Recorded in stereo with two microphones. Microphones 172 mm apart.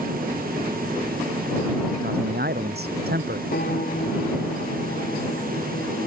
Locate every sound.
2.0 s a man speaking: 70° right (ahead or behind)
3.5 s a piano: 65° left (ahead or behind)